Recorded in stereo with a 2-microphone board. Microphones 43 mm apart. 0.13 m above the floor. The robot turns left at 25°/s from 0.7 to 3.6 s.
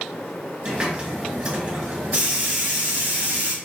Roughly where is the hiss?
Ahead.